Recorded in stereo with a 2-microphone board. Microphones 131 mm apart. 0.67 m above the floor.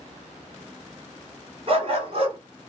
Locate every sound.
1.7 s a dog barking: 50° right (ahead or behind), 1.4 m